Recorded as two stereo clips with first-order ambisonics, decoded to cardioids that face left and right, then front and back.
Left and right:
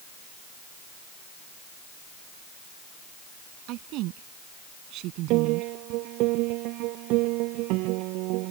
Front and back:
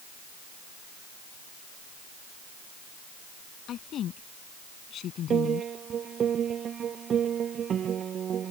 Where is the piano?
120° right.